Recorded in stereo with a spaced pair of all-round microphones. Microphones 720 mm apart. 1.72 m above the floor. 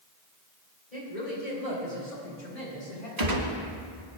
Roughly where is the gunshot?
Right.